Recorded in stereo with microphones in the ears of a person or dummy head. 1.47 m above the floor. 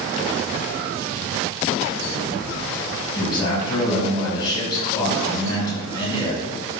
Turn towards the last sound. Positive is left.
turn(degrees=25)  # may be behind; listen again after turning